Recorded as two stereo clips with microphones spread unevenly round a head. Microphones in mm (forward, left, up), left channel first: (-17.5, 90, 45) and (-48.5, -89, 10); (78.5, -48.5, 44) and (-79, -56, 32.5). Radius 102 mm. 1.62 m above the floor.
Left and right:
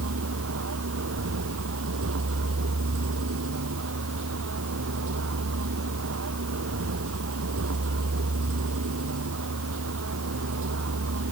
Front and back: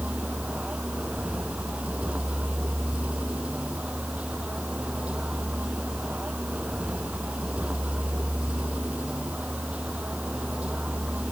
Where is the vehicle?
95° right.